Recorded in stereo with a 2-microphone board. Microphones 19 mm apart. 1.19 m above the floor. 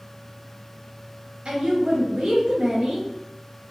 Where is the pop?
No pop in this recording.